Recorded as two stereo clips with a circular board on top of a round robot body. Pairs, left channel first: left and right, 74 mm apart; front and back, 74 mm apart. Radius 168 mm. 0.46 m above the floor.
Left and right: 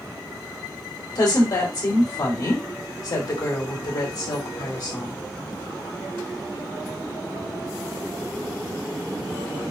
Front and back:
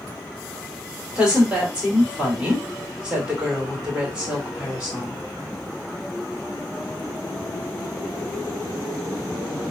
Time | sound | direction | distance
1.1 | a woman speaking | 105° left | 2.5 m